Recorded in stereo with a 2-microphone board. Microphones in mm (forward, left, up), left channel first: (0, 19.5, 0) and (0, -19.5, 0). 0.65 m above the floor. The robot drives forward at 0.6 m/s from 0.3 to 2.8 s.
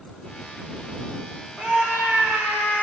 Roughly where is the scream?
Right.